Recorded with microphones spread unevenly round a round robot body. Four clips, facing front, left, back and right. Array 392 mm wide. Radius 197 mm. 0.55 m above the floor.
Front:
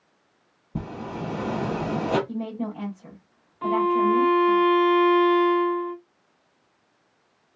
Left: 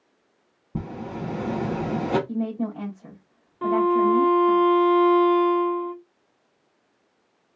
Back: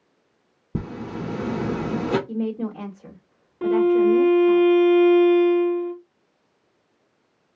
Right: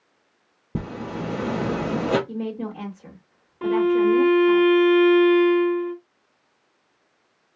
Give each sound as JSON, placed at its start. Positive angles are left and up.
{"t": 0.8, "sound": "a zipper", "azimuth_deg": -155, "distance_m": 2.0}
{"t": 2.3, "sound": "a woman speaking", "azimuth_deg": -155, "distance_m": 2.5}
{"t": 3.6, "sound": "a violin", "azimuth_deg": -170, "distance_m": 1.5}